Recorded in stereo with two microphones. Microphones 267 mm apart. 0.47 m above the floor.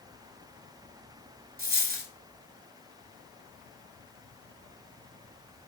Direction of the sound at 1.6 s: 30° right (ahead or behind).